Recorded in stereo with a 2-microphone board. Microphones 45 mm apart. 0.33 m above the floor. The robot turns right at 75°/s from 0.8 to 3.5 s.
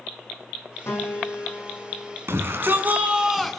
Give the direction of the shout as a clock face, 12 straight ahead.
3 o'clock.